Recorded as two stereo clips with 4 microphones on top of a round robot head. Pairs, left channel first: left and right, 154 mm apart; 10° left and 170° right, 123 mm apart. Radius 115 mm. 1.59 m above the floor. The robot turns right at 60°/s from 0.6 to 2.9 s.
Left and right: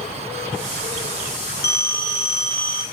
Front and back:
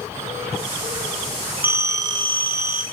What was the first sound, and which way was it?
A phone ringing, 115° left.